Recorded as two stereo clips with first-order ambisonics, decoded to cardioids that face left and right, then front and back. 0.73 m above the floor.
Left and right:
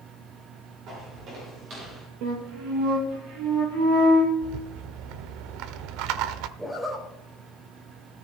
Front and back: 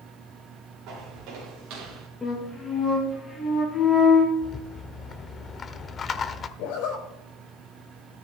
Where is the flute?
80° right, 6.5 m.